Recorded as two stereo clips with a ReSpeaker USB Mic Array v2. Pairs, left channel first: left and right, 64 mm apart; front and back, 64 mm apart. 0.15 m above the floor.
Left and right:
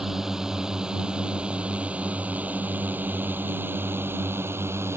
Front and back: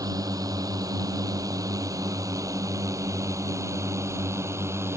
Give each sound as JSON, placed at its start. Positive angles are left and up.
{"t": 0.0, "sound": "a drone", "azimuth_deg": -175}